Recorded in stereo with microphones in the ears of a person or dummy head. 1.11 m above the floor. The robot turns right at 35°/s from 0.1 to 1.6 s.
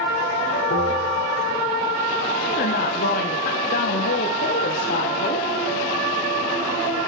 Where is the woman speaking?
45° left (ahead or behind), 0.7 m.